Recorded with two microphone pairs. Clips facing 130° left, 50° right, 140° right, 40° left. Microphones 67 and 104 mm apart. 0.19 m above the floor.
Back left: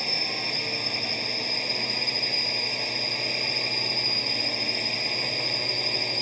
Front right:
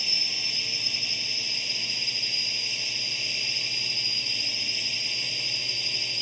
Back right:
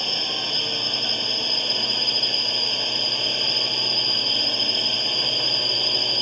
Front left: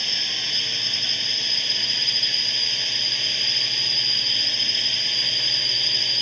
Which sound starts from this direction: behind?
A drone, at 0.0 s.